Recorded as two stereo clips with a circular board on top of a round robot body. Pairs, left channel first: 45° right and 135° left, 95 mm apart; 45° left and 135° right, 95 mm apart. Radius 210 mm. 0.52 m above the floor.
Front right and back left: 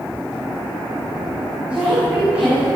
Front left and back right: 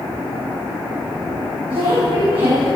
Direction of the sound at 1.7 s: 145° right.